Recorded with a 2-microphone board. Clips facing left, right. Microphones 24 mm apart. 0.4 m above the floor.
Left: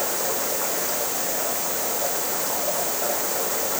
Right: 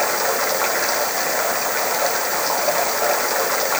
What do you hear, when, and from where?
0.0 s running water: 55° right (ahead or behind)